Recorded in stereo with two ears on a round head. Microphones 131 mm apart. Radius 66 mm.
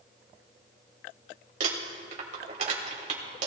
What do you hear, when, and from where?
1.6 s crumpling: 60° right (ahead or behind), 2.5 m